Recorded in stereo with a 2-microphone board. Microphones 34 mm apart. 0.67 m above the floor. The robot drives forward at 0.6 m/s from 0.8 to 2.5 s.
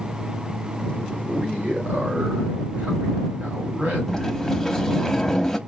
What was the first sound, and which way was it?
A man speaking, 50° right (ahead or behind).